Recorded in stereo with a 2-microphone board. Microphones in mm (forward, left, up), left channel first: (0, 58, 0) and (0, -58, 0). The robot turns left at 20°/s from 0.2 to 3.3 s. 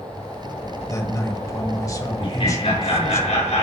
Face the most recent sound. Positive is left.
turn(degrees=75)  # may be behind; listen again after turning